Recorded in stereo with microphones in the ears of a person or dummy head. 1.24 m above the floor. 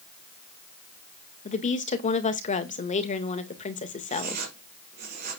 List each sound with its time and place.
1.4 s a woman speaking: 35° left (ahead or behind), 1.8 m
4.1 s writing: 50° right (ahead or behind), 4.5 m